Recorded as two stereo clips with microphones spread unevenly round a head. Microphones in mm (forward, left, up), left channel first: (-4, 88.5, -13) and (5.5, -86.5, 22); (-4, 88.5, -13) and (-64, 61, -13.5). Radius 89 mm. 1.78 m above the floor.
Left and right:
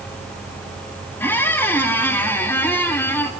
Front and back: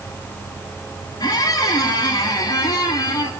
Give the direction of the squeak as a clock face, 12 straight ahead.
12 o'clock.